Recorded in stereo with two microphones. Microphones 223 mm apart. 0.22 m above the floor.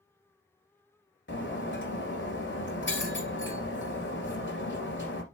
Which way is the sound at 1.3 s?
60° left (ahead or behind).